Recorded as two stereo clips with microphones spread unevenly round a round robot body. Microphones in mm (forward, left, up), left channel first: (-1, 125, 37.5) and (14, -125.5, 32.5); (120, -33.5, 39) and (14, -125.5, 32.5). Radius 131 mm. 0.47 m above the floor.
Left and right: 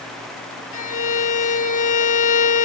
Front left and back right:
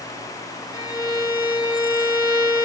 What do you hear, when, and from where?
0.7 s a violin: 105° left, 1.3 m